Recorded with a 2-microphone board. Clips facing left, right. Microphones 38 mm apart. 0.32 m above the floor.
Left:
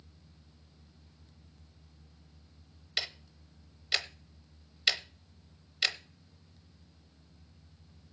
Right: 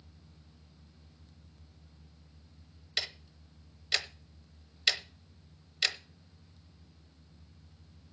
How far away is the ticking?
About 0.9 m.